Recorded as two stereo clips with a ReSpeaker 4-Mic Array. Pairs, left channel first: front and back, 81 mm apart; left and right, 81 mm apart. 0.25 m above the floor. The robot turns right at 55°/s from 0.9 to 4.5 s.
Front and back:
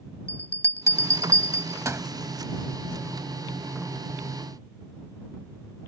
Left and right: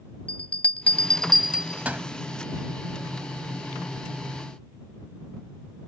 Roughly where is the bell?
Behind left.